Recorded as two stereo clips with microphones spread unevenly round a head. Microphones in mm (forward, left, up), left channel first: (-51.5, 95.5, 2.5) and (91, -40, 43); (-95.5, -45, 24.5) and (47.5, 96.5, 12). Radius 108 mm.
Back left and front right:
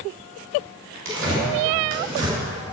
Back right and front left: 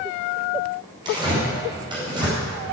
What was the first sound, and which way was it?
Tearing paper, 25° right.